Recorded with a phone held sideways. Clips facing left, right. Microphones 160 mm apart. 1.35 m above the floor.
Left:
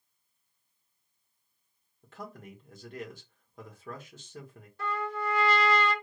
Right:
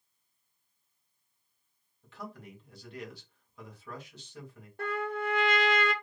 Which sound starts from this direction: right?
A trumpet, at 4.8 s.